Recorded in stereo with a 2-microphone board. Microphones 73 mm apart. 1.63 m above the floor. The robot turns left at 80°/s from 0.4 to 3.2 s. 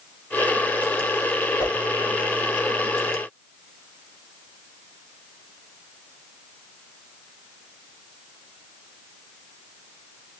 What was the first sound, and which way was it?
A whoosh, 50° left (ahead or behind).